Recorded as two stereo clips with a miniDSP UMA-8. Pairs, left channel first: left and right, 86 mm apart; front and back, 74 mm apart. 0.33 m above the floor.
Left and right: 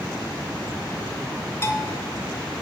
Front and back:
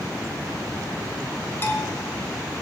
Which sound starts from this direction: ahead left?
A bell, at 1.6 s.